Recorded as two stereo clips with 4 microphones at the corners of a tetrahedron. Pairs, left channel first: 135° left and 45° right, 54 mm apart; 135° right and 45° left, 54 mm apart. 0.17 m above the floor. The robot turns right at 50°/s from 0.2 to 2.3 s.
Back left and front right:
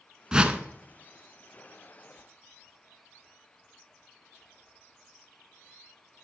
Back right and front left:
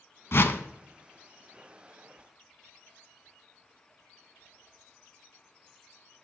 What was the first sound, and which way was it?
A whoosh, 115° right.